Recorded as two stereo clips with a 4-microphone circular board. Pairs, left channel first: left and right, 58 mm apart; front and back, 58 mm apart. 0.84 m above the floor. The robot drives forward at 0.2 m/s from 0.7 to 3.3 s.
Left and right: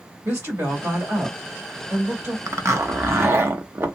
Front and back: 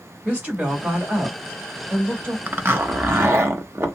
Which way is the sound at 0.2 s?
115° right.